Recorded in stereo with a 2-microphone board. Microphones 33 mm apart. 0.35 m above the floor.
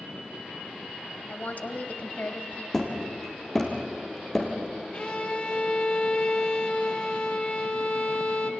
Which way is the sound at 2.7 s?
15° left (ahead or behind).